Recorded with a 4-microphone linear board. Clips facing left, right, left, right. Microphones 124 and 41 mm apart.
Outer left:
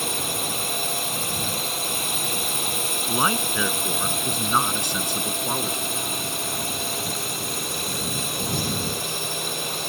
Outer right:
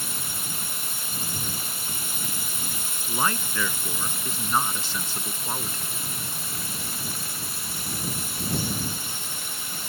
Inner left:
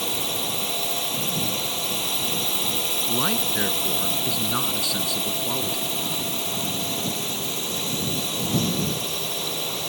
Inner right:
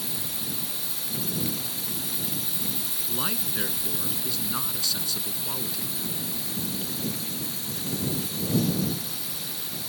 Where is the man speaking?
20° left (ahead or behind).